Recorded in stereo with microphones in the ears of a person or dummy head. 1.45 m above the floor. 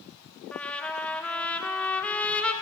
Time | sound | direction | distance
0.5 | a trumpet | 10° left (ahead or behind) | 1.6 m